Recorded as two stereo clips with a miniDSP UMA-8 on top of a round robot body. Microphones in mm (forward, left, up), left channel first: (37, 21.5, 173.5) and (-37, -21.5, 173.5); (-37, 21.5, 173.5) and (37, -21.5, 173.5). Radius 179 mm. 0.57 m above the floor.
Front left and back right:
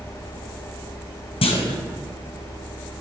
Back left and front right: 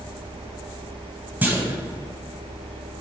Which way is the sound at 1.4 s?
40° left.